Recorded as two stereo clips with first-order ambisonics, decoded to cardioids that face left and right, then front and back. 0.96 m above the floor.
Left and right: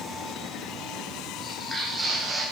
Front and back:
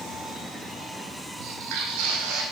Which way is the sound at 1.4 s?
160° left.